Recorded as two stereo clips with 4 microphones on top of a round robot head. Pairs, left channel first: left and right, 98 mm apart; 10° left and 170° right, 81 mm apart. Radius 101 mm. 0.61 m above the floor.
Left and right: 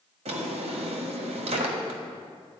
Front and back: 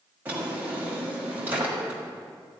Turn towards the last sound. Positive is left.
turn(degrees=-95)